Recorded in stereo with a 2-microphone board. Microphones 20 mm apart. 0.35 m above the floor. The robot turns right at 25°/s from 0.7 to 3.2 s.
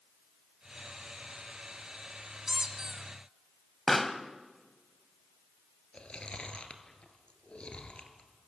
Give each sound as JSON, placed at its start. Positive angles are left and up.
{"t": 2.5, "sound": "a squeak", "side_deg": -40, "distance_m": 1.6}
{"t": 3.9, "sound": "a pop", "side_deg": 5, "distance_m": 1.1}
{"t": 5.9, "sound": "chewing", "side_deg": 55, "distance_m": 2.0}